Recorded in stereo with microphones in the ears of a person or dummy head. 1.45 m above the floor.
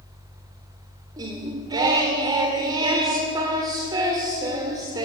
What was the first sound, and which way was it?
Singing, 15° right (ahead or behind).